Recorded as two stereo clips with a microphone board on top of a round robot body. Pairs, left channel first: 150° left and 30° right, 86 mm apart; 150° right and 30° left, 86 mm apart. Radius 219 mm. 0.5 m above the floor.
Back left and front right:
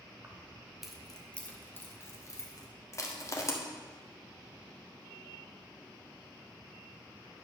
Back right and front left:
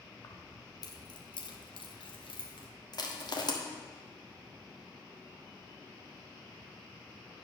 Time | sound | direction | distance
0.2 | keys jangling | 95° right | 1.4 m
2.9 | crushing | 165° right | 1.7 m